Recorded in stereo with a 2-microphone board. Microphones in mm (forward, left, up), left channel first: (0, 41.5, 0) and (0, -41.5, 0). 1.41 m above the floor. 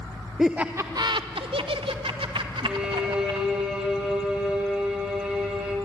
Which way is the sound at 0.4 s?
5° right (ahead or behind).